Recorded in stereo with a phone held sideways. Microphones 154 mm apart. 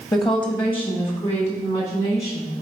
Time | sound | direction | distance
0.1 | a woman speaking | 30° left (ahead or behind) | 1.4 m